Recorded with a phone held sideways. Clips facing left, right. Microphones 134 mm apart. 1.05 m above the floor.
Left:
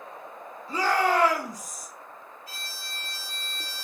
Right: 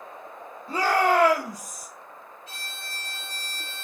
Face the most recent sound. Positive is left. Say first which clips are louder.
# right 1 dB
turn(degrees=-20)  # may be behind; listen again after turning